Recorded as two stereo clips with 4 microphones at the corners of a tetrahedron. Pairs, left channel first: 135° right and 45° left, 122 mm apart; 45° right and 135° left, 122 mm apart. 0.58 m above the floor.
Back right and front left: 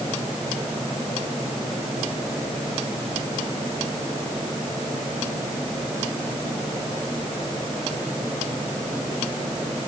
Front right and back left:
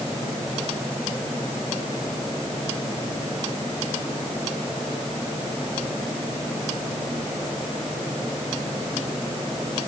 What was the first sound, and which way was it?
Only background noise.